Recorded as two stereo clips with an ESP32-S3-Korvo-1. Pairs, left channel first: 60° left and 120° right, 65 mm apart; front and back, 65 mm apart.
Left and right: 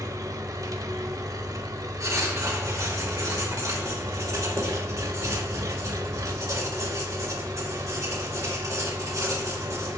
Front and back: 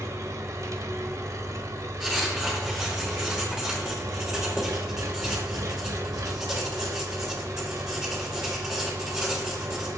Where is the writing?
100° right, 2 m.